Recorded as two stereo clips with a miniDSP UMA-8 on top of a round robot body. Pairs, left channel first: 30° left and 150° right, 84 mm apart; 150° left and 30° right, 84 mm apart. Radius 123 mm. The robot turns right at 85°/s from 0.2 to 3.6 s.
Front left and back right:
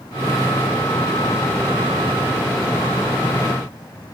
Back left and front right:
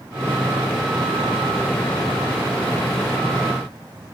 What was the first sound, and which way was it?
Only background noise.